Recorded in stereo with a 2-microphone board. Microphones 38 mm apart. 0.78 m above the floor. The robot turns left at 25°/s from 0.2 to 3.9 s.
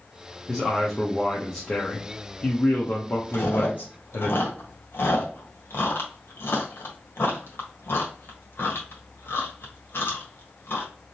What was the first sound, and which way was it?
A man speaking, 175° right.